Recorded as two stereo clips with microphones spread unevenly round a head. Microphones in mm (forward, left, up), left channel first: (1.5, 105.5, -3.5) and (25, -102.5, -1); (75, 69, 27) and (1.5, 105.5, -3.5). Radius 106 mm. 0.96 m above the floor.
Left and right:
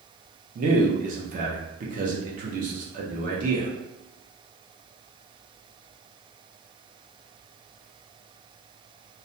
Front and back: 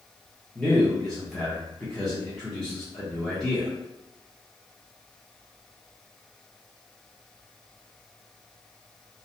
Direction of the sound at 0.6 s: 130° right.